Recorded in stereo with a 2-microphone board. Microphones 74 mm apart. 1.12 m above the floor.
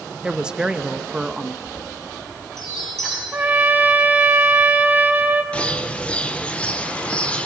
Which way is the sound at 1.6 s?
5° left (ahead or behind).